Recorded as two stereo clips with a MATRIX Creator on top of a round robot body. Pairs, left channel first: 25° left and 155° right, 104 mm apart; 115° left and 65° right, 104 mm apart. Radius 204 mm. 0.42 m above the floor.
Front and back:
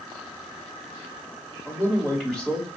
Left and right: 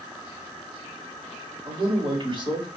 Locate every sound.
1.6 s a man speaking: 45° right, 2 m; by 2.7 s 65° right, 1.9 m